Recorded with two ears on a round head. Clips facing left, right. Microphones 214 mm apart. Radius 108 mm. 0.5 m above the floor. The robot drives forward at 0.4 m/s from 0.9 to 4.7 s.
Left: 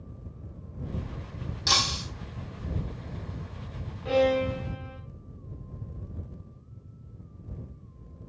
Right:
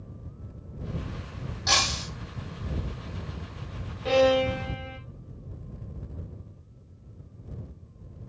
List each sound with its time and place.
1.7 s breaking glass: 40° left (ahead or behind), 4.5 m
4.0 s a violin: 65° right (ahead or behind), 3 m; by 5.0 s 60° right (ahead or behind), 3 m